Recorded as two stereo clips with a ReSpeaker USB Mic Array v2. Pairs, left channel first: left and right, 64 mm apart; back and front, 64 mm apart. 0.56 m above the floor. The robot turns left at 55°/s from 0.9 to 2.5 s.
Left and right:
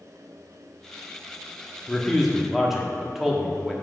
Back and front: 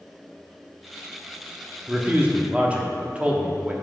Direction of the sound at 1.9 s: 20° left.